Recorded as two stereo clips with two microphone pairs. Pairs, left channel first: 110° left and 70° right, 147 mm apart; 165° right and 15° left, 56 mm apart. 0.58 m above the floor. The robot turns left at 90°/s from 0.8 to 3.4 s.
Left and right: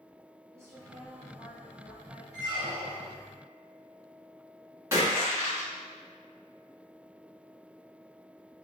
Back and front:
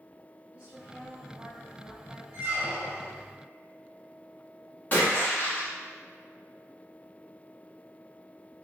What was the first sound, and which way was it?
A woman speaking, 25° right.